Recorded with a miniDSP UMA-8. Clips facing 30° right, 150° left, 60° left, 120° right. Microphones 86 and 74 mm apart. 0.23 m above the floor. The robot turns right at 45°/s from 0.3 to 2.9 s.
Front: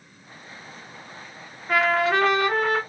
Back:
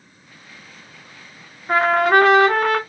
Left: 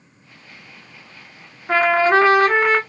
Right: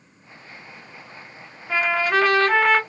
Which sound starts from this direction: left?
A trumpet, at 1.7 s.